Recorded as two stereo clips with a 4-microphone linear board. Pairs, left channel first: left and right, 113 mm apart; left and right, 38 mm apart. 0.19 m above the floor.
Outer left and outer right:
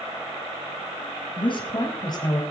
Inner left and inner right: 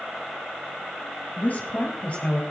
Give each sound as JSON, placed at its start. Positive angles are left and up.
{"t": 1.4, "sound": "a woman speaking", "side_deg": 50, "distance_m": 3.0}